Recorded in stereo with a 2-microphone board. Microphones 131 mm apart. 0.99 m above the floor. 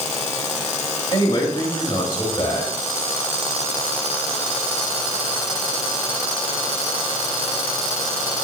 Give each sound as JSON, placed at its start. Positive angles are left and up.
{"t": 1.1, "sound": "a man speaking", "side_deg": 40, "distance_m": 4.0}